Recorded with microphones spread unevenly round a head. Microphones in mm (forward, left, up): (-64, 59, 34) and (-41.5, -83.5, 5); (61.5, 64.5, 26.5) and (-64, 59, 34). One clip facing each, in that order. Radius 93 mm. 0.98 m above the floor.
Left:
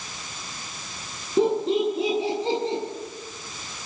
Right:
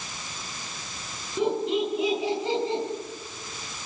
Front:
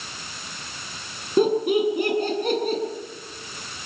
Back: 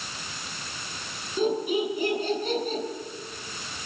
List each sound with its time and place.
1.4 s laughter: 35° left, 9.5 m; by 2.8 s 30° left, 9 m